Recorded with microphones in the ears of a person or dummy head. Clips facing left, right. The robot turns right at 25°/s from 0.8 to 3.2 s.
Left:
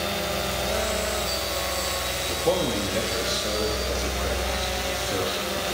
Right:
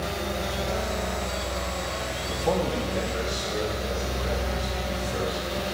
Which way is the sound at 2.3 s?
30° left (ahead or behind).